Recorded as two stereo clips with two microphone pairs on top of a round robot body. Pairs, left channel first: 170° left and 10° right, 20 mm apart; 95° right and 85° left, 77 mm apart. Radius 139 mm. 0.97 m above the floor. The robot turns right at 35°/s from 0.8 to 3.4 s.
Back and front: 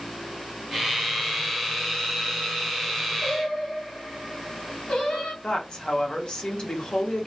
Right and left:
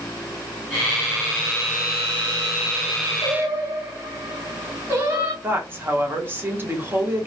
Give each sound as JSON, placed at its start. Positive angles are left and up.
{"t": 3.2, "sound": "singing", "azimuth_deg": 135, "distance_m": 1.5}
{"t": 5.4, "sound": "a woman speaking", "azimuth_deg": 135, "distance_m": 1.4}